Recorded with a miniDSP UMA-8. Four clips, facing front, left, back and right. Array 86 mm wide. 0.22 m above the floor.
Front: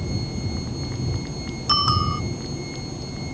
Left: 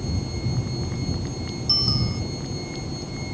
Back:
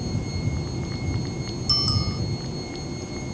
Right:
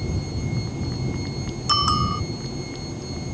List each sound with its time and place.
1.7 s a bicycle bell: 45° right